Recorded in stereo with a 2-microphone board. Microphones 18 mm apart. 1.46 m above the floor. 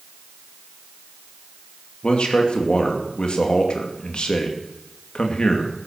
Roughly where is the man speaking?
Left.